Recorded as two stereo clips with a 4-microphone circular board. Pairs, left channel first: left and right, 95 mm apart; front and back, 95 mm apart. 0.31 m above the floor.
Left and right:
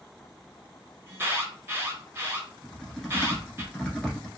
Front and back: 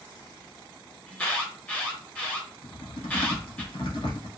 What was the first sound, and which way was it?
An alarm, 60° right.